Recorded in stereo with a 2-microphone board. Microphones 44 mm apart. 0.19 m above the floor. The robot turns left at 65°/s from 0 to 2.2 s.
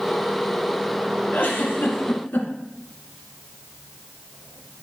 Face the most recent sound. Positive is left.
turn(degrees=65)